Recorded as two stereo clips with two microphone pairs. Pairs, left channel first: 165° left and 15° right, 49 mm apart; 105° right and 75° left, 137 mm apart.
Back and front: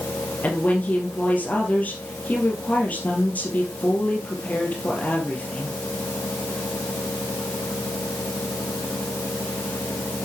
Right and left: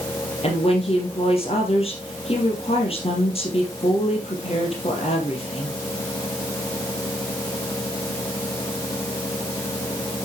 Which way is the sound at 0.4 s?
140° right.